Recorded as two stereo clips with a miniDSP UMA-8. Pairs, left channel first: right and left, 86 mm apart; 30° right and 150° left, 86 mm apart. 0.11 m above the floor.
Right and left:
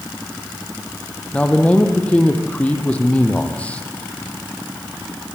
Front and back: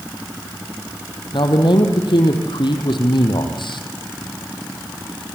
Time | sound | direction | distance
1.3 | a man speaking | 15° right | 3.5 m